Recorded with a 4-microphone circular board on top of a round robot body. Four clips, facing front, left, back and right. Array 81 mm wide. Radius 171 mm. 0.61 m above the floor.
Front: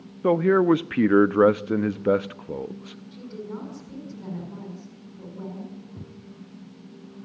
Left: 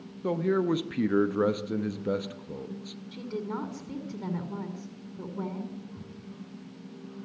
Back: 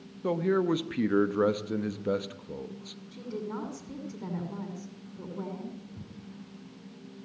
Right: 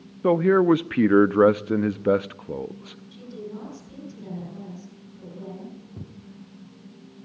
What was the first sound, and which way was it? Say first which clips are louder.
A man speaking: right 9 dB, front 8 dB; 45° right.